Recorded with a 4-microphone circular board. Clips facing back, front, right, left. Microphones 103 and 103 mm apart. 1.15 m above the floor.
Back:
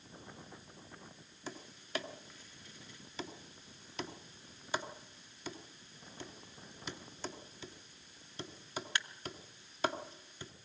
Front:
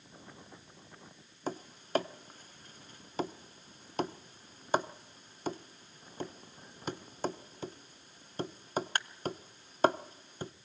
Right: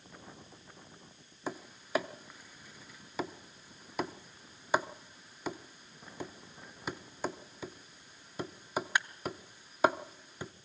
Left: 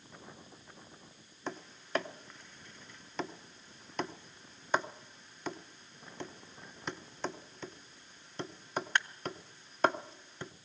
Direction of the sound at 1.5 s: 10° right.